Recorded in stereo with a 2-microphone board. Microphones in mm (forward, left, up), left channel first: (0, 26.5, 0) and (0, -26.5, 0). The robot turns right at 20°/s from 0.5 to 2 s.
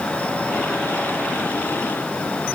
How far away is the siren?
I don't hear a siren.